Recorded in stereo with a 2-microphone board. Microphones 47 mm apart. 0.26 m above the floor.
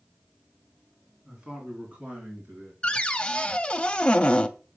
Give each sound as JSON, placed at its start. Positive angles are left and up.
{"t": 1.2, "sound": "a man speaking", "side_deg": -15, "distance_m": 3.0}
{"t": 2.8, "sound": "a cupboard door", "side_deg": 20, "distance_m": 0.5}